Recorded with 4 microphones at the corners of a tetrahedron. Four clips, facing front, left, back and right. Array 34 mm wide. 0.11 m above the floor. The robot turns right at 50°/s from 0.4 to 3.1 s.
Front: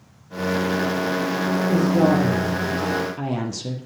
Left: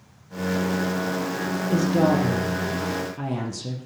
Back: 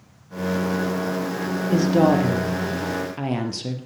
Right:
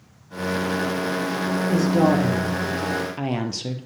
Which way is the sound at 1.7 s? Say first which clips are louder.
Right 1 dB, back 2 dB; 175° left.